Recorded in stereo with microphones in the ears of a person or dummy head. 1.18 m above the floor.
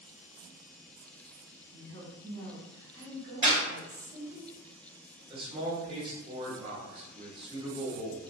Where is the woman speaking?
75° right (ahead or behind), 1.9 m.